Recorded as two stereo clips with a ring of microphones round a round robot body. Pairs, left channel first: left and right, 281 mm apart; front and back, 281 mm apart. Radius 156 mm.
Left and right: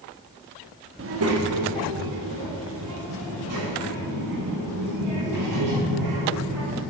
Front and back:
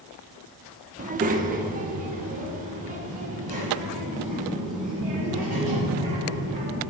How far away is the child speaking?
About 0.9 m.